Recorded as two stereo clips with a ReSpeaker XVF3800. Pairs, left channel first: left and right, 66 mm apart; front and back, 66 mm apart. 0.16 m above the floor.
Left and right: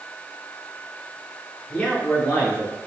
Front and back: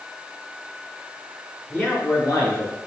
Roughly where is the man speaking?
Ahead left.